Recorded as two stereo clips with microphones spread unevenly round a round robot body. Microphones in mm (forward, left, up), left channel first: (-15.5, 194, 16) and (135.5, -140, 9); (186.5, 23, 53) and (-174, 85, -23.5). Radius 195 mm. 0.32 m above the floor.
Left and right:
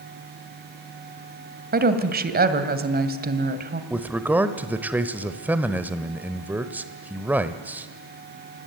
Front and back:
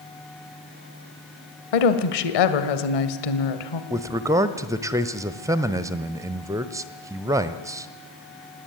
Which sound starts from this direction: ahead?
A woman speaking, at 1.7 s.